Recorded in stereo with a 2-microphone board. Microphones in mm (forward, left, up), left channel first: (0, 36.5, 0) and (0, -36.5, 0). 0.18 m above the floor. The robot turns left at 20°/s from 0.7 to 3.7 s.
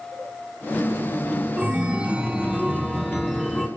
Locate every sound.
1.6 s a chime: 15° right (ahead or behind), 1.0 m; by 3.7 s 5° left (ahead or behind), 1.0 m